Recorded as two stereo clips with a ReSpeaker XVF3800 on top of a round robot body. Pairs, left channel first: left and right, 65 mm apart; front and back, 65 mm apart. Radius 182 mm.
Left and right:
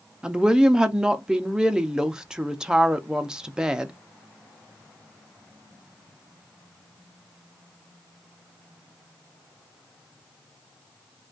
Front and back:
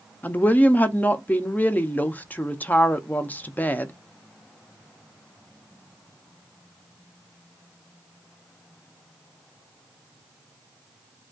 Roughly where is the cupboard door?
No cupboard door in this recording.